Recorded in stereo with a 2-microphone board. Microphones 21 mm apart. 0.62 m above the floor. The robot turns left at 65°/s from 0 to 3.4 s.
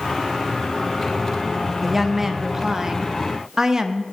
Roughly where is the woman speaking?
Centre.